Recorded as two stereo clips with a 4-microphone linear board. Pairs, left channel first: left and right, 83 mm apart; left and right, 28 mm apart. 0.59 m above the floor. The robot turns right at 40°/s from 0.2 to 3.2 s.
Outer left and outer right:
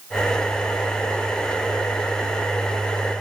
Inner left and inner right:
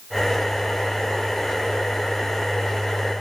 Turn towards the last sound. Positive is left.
No sound to turn to.